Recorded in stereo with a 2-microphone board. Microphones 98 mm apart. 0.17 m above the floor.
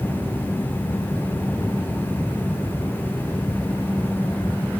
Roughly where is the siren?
I don't hear a siren.